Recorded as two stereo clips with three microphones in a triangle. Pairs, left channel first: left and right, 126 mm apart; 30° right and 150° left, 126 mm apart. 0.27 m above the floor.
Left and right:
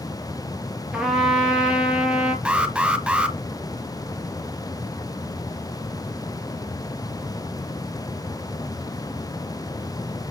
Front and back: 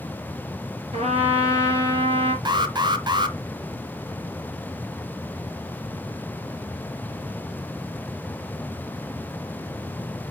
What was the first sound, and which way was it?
A trumpet, 175° right.